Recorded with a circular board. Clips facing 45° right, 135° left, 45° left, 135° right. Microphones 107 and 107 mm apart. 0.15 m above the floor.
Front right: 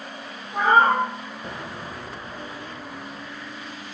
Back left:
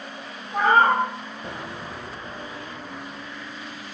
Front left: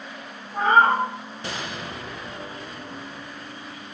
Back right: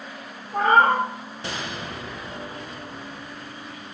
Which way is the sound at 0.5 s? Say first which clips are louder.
Even, even; 125° right.